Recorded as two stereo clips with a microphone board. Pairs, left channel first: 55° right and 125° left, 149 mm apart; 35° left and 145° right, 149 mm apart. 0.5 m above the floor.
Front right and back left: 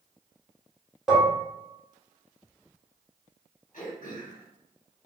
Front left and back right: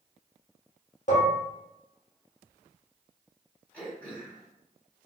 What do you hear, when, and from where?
1.1 s dishes clattering: 40° left, 1.0 m
3.7 s throat clearing: 45° right, 1.2 m